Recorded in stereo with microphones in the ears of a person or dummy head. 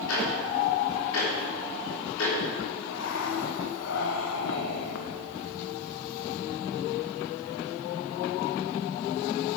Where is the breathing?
65° left (ahead or behind), 1.0 m.